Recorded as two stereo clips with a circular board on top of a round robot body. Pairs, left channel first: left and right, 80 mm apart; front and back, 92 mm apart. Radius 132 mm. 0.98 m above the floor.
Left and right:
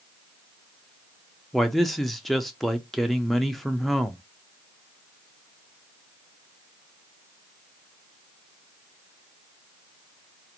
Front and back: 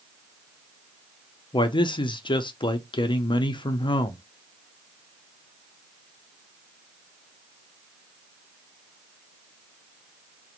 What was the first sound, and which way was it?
A man speaking, 5° left.